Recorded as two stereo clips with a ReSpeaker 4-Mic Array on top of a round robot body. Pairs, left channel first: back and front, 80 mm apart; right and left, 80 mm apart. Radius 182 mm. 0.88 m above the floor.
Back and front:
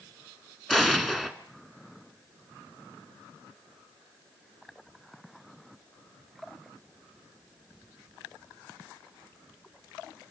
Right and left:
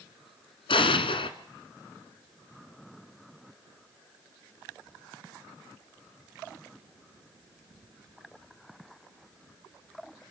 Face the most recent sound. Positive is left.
turn(degrees=-95)